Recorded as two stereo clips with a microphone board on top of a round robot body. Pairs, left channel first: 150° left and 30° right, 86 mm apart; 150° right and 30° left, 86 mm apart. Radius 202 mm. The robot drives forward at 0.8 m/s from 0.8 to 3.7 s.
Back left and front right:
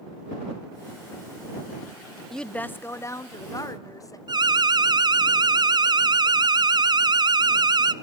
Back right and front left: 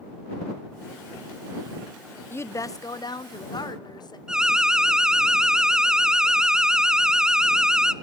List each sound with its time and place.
2.3 s a woman speaking: 130° right, 0.8 m; by 4.2 s 170° right, 1.5 m
4.3 s an alarm: 50° right, 0.9 m